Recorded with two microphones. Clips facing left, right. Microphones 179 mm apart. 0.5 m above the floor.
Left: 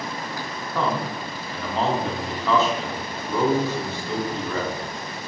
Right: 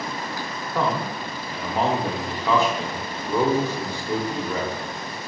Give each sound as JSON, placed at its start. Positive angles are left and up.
{"t": 0.8, "sound": "a man speaking", "side_deg": -15, "distance_m": 0.6}